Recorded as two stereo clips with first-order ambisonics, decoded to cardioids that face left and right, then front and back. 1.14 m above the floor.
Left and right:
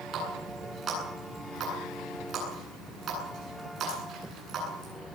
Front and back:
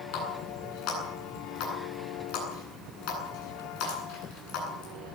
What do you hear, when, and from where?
0.1 s a running tap: 30° right, 9.5 m